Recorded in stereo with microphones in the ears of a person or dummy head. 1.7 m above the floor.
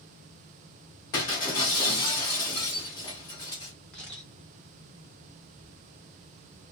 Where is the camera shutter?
10° left (ahead or behind), 1.1 m.